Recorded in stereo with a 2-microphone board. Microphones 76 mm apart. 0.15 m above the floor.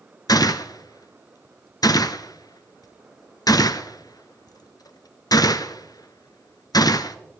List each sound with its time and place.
0.3 s a gunshot: 65° left (ahead or behind), 0.6 m